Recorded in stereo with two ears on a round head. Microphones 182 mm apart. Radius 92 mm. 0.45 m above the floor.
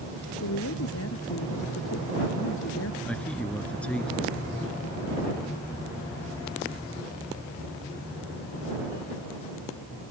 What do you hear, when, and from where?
0.4 s a woman speaking: 80° left; by 3.0 s 70° left (ahead or behind)
3.0 s a man speaking: 5° left (ahead or behind)